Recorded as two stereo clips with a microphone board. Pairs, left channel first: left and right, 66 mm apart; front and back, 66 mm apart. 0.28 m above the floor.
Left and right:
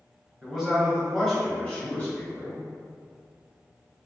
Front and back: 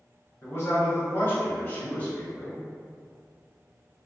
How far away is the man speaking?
About 1.4 m.